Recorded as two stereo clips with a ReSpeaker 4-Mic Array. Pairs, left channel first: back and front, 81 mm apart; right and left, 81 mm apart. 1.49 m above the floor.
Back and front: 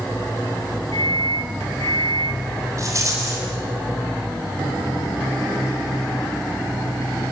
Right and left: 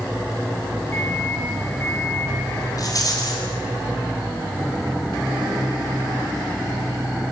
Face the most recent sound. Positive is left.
turn(degrees=-50)